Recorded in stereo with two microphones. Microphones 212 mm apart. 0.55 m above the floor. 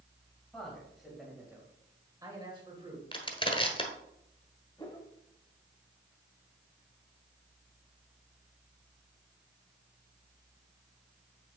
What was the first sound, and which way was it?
A man speaking, 5° left (ahead or behind).